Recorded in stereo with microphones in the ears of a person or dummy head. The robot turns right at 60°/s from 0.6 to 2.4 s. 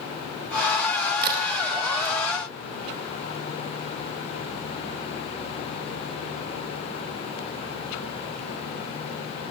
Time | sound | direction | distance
1.2 | a crack | 55° right (ahead or behind) | 2.5 m